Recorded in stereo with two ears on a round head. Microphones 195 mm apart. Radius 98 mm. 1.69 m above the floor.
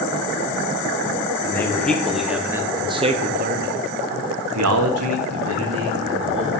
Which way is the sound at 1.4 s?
10° left (ahead or behind).